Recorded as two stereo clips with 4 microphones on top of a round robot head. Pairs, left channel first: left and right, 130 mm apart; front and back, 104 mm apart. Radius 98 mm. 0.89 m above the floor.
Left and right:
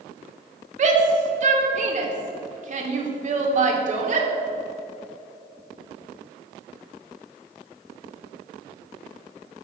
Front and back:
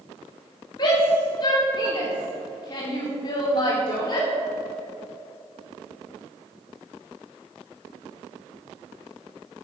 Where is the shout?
60° right, 2.5 m.